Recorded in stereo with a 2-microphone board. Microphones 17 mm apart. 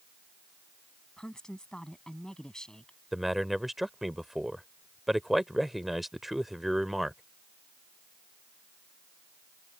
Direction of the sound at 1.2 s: 55° left (ahead or behind).